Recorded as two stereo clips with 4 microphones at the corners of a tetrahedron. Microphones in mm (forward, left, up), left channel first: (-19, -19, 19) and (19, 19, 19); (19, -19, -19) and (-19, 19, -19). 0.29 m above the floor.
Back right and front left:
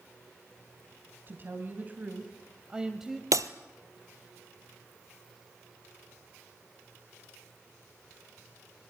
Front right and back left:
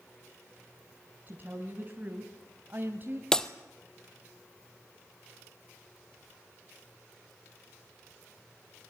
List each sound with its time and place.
1.3 s a woman speaking: 85° left, 2.5 m; by 3.2 s 130° left, 1.8 m
3.3 s breaking glass: 30° left, 1.1 m